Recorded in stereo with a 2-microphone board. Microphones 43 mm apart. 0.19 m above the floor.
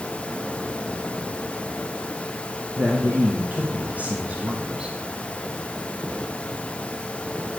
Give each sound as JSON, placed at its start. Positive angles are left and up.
{"t": 2.8, "sound": "a man speaking", "side_deg": -45, "distance_m": 2.5}